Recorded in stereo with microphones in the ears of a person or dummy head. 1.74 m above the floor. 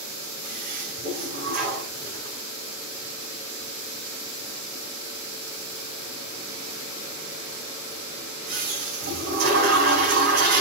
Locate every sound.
0.4 s a toilet flushing: 55° right (ahead or behind), 5 m